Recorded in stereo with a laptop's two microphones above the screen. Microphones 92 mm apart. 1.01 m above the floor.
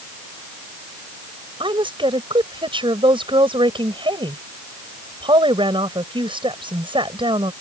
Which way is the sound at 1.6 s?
70° right (ahead or behind).